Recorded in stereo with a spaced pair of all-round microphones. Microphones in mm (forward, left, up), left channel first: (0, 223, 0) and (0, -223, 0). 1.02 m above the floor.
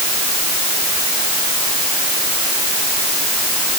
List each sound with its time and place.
Only background noise.